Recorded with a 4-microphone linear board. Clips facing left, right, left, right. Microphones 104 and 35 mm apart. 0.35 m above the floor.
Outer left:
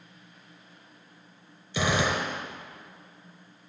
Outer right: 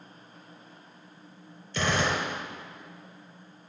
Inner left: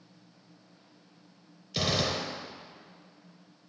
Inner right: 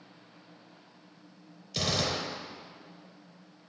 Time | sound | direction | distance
1.7 | a gunshot | 5° left (ahead or behind) | 4 m